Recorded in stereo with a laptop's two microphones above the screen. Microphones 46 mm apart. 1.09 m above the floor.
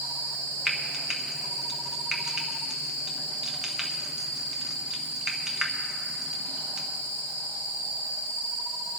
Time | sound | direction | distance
0.7 | frying | 15° right (ahead or behind) | 0.7 m